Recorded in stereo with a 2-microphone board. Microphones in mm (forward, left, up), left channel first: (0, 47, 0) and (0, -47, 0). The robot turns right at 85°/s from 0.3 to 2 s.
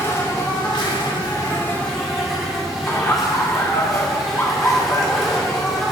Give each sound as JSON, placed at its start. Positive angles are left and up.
{"t": 0.0, "sound": "an insect", "azimuth_deg": 35, "distance_m": 2.0}
{"t": 2.9, "sound": "laughter", "side_deg": 25, "distance_m": 1.1}